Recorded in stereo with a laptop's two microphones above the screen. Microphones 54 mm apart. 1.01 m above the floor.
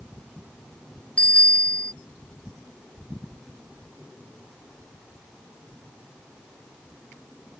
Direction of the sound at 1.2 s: 25° left (ahead or behind).